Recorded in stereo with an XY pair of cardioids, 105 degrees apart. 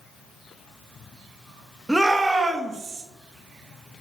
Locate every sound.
1.9 s a shout: 5° right, 0.9 m; by 3.0 s 40° right, 1.6 m